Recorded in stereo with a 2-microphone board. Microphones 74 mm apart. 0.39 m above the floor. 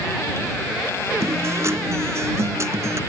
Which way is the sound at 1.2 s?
40° right (ahead or behind).